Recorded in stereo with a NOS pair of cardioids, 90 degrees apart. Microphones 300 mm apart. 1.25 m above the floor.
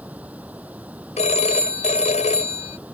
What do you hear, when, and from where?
0.0 s running water: 5° right
1.2 s a phone ringing: 25° left